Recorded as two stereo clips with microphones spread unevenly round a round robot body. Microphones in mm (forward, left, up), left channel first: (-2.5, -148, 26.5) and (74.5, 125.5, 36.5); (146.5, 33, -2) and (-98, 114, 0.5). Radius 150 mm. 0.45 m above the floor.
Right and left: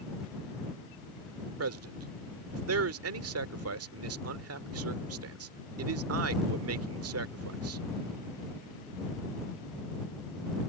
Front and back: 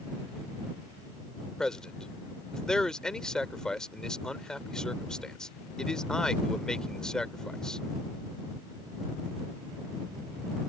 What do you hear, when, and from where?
1.6 s a man speaking: 70° left